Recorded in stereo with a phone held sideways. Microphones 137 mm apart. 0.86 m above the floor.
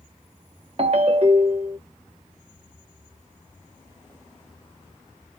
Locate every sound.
0.8 s a ringtone: 50° right (ahead or behind), 0.7 m